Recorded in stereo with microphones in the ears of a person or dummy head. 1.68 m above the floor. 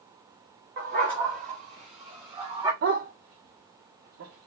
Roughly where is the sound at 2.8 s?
Right.